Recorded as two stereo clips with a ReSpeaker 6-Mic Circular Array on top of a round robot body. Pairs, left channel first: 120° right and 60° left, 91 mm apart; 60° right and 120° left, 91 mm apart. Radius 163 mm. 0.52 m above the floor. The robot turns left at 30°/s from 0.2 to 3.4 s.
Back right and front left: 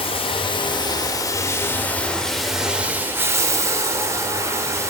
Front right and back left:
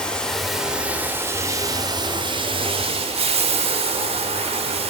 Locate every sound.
0.0 s running water: 140° right, 0.8 m; by 4.9 s 120° left, 0.8 m